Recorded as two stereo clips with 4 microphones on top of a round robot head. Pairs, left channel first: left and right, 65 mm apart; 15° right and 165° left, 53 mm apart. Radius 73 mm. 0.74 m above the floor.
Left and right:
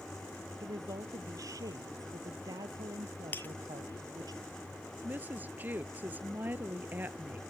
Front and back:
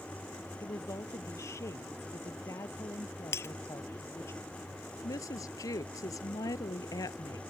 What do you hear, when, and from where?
0.6 s a woman speaking: 50° right; by 4.3 s 60° right
3.3 s breaking glass: 20° left
5.0 s a woman speaking: 25° right